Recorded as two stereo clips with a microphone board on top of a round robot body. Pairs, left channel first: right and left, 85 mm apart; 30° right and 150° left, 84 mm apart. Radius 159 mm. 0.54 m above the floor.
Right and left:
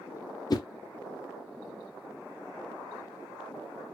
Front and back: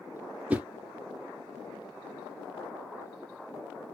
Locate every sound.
0.5 s a whoosh: 135° right, 0.5 m